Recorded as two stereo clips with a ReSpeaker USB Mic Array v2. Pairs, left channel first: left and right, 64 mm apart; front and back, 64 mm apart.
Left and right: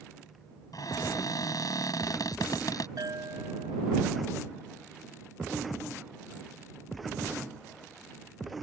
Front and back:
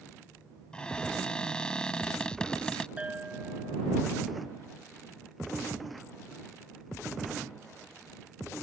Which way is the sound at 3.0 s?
110° right.